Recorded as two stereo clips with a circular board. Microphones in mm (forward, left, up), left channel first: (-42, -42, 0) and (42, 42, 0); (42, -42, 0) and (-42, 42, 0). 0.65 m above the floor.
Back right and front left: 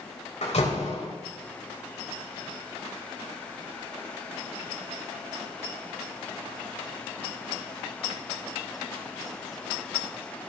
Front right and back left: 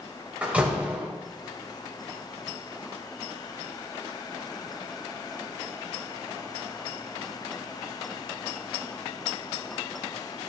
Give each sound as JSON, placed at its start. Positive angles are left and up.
{"t": 0.4, "sound": "a door slam", "azimuth_deg": -145, "distance_m": 2.5}